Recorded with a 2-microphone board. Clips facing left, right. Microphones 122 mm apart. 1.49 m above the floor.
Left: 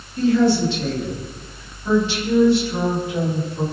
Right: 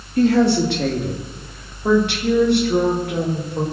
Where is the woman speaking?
80° right, 3 m; by 3.6 s 85° right, 5.5 m.